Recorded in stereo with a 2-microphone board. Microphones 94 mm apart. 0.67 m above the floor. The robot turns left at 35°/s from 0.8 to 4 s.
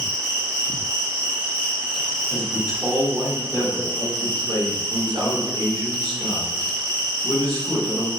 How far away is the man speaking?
About 1.9 m.